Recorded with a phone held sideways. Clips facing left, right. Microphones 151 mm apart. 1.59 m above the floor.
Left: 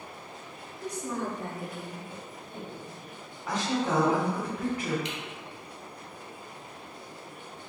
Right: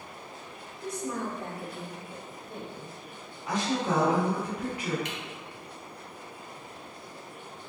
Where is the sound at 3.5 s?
50° left (ahead or behind), 1.9 m.